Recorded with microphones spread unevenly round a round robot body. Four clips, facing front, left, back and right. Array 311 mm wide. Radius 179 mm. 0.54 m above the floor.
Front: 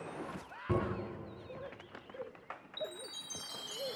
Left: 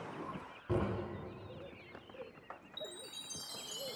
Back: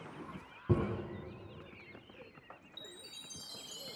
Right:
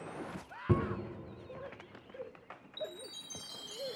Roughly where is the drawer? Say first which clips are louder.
Right 3 dB, back 1 dB; behind right.